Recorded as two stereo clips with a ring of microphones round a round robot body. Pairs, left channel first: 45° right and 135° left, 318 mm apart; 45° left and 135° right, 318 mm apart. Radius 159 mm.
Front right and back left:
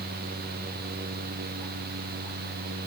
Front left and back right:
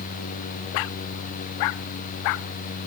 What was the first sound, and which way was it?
Only background noise.